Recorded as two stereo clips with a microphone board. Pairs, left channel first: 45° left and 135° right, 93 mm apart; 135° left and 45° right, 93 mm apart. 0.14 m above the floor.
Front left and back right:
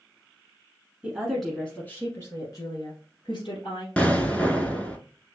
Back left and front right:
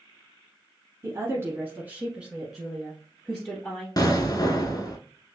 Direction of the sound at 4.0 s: 115° left.